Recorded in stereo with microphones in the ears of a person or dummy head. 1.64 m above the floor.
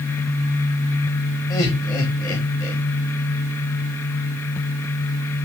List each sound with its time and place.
1.5 s laughter: 20° left (ahead or behind), 1.6 m